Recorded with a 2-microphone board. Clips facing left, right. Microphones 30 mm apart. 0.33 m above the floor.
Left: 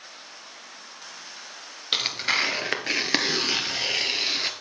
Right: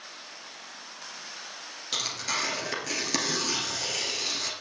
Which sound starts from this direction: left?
Tearing paper, at 1.9 s.